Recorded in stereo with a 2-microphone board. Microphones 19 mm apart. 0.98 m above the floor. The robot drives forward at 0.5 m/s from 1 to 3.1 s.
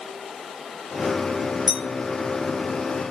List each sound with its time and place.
1.7 s a clink: 85° right, 1.6 m